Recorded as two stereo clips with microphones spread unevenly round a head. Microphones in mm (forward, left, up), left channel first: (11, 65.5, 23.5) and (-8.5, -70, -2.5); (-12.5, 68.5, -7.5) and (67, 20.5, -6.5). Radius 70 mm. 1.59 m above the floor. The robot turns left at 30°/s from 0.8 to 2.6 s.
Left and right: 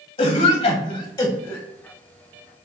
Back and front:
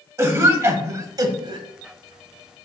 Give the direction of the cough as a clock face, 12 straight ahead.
11 o'clock.